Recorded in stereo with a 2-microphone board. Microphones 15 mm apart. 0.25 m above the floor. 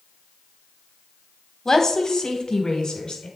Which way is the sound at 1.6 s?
40° left (ahead or behind).